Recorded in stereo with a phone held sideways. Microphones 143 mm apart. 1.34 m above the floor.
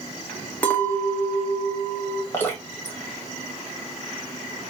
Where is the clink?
10° left (ahead or behind), 1.2 m.